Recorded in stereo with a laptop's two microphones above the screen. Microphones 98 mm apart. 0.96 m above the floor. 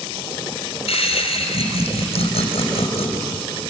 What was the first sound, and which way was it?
Laughter, 85° left.